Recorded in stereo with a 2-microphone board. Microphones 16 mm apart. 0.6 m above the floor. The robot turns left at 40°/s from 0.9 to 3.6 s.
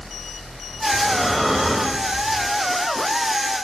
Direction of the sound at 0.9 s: 5° left.